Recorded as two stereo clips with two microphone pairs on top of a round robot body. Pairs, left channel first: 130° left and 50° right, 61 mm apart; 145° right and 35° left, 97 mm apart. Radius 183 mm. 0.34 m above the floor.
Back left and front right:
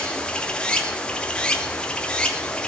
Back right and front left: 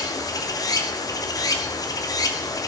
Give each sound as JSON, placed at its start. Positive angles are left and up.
{"t": 0.0, "sound": "running water", "azimuth_deg": -170, "distance_m": 1.3}